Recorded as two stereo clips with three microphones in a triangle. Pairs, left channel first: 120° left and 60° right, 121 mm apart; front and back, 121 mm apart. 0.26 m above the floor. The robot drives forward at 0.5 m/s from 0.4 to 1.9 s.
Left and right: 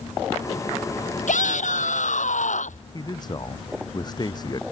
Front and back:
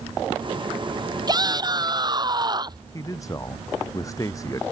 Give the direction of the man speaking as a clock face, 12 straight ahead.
10 o'clock.